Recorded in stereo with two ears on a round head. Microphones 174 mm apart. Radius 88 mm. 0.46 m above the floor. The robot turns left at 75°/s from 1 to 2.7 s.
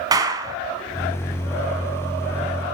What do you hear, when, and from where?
0.1 s a clap: 20° right (ahead or behind), 3 m